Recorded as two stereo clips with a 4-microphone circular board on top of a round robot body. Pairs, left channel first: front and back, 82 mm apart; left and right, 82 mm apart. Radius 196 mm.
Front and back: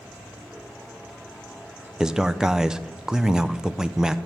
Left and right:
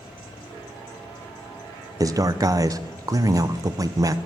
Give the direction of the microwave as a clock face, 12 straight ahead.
No microwave in this recording.